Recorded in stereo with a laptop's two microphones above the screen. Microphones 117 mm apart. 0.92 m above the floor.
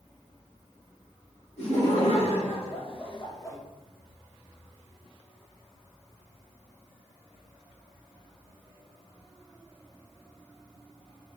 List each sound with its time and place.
1.6 s laughter: 65° left (ahead or behind), 2 m; by 3.6 s 25° left (ahead or behind), 0.8 m